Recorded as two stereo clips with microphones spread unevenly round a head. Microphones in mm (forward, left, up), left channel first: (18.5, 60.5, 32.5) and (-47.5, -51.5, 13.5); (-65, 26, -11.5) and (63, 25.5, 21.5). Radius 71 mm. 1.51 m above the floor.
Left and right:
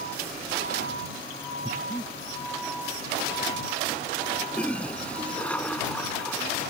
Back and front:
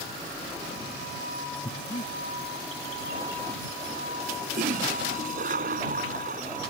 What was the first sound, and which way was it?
Breathing, 125° left.